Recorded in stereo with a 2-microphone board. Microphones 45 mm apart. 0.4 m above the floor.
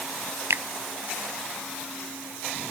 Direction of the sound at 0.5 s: 70° right (ahead or behind).